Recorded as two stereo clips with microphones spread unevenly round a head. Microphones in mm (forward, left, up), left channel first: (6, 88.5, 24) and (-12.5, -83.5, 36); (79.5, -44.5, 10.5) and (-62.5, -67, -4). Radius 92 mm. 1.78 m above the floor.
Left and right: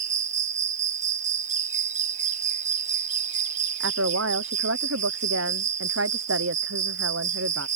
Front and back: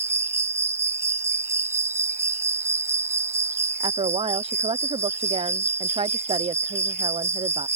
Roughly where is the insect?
Right.